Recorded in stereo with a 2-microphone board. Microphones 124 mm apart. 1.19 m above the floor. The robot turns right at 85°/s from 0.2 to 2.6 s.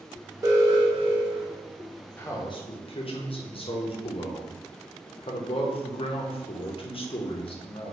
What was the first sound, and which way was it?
An alarm, 145° right.